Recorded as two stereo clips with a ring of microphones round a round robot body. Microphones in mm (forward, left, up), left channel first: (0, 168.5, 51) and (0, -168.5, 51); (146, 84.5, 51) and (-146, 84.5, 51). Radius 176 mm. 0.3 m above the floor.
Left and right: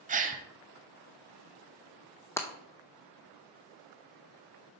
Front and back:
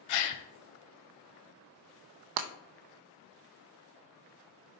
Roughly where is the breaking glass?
Behind.